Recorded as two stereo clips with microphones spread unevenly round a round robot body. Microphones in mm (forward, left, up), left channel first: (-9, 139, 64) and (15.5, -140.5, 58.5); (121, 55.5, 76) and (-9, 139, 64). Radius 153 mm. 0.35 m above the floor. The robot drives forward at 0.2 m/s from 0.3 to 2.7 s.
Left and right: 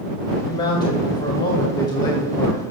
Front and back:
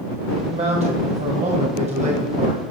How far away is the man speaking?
About 1.6 m.